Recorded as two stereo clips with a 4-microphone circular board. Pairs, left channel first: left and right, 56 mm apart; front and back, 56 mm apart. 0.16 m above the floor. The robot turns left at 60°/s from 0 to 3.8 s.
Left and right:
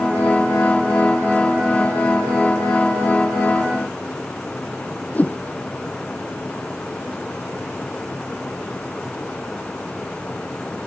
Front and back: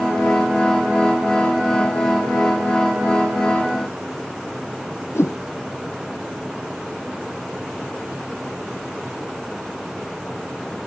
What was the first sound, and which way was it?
A whoosh, 30° left.